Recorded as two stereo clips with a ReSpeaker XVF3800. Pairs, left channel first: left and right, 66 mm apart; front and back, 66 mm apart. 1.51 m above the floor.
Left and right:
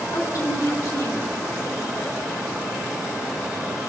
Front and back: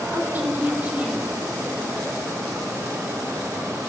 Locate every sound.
0.1 s a woman speaking: 120° left, 4.5 m; by 2.2 s 105° left, 4.5 m